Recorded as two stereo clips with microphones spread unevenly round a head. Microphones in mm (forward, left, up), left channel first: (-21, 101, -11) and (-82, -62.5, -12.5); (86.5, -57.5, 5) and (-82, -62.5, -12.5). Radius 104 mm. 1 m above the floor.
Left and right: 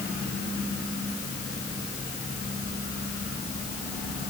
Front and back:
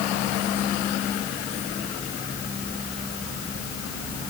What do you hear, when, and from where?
Only background noise.